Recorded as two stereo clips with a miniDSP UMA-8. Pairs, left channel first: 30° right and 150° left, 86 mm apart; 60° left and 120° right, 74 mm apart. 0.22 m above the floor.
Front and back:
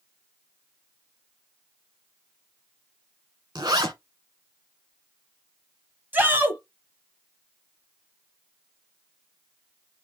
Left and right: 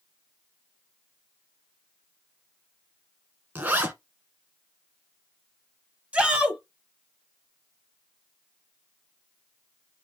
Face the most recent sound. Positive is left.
turn(degrees=-175)